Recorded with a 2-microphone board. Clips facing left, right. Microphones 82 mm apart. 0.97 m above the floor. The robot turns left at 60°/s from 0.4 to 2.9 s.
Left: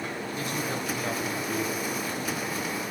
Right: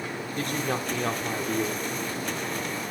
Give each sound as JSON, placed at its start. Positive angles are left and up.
{"t": 0.4, "sound": "a man speaking", "azimuth_deg": -55, "distance_m": 3.0}